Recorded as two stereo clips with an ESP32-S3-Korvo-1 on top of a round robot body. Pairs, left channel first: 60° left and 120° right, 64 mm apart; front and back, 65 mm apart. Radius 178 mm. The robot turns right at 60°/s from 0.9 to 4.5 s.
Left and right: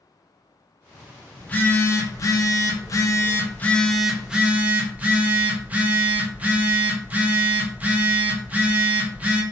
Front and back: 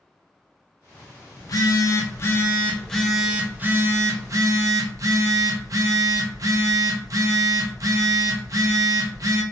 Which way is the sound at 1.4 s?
10° right.